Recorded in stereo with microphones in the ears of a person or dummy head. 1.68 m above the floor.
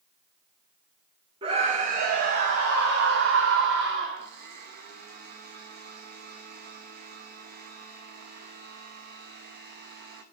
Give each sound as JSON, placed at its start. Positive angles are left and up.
{"t": 1.4, "sound": "a scream", "side_deg": -30, "distance_m": 1.0}
{"t": 4.2, "sound": "a blender", "side_deg": -55, "distance_m": 1.0}